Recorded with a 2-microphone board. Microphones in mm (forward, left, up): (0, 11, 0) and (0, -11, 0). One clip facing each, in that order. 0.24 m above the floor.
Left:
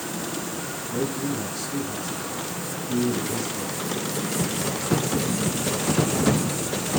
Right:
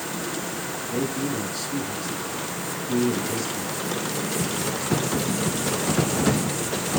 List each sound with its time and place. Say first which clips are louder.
0.9 s a man speaking: even; 75° right (ahead or behind), 5 m